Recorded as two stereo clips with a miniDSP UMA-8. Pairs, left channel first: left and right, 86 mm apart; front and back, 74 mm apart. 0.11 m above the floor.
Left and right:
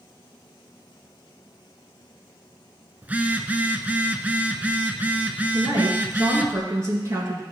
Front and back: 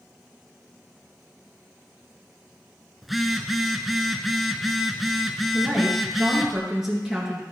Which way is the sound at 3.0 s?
95° right.